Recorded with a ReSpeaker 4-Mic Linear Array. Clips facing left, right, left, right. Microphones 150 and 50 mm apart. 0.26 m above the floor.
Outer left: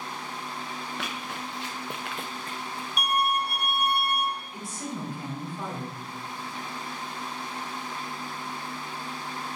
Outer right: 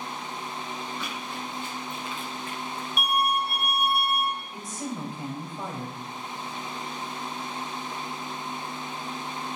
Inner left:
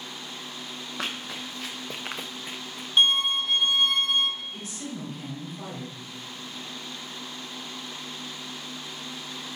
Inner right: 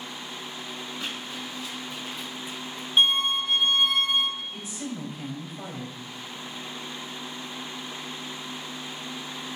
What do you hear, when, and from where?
1.0 s running footsteps: 80° left, 2 m; by 2.9 s 5° left (ahead or behind), 0.8 m
3.0 s a violin: centre (ahead or behind), 0.6 m
4.5 s a woman speaking: 20° right (ahead or behind), 1.5 m